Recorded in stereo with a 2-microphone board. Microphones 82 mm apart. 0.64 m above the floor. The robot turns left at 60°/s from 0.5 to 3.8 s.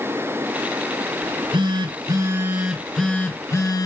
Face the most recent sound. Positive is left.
turn(degrees=130)